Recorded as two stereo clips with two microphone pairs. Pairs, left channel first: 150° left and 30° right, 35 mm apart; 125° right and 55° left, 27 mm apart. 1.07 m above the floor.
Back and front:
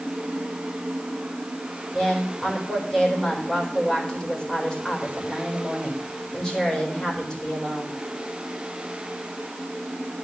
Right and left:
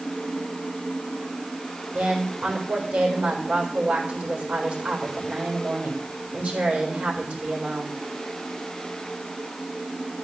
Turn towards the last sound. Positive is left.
turn(degrees=80)